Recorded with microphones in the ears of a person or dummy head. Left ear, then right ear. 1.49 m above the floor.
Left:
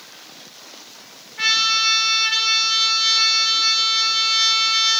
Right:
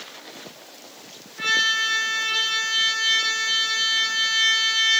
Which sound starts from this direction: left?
A trumpet, at 1.4 s.